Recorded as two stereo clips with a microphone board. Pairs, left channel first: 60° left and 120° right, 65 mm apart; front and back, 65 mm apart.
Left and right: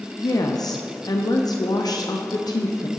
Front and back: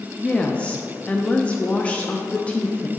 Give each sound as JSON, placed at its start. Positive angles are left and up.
{"t": 0.2, "sound": "a woman speaking", "azimuth_deg": 70, "distance_m": 0.6}